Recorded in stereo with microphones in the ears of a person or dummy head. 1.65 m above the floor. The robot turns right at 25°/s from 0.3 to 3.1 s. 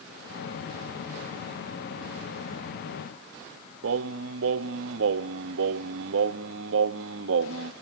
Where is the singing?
65° right (ahead or behind), 0.8 m.